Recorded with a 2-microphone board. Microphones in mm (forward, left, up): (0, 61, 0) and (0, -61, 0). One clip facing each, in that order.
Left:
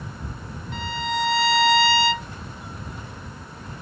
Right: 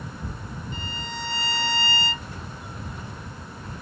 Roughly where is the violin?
Left.